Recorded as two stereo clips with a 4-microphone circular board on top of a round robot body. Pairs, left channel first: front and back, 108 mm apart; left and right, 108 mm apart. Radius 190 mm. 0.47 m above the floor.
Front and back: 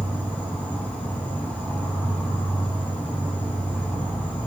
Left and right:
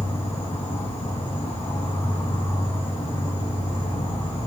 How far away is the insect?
About 8 m.